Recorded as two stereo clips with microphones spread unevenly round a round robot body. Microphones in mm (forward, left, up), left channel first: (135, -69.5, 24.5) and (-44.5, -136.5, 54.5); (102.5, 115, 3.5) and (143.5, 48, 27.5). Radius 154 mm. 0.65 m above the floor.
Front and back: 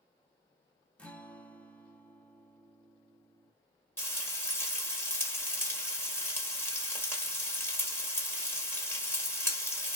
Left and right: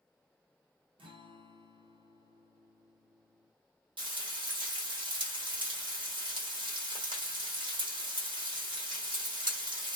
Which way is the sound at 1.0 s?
60° right.